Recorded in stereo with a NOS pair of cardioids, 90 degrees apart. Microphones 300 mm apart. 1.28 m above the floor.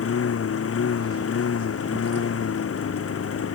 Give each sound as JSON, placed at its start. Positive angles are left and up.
{"t": 0.0, "sound": "a lawn mower", "azimuth_deg": 50}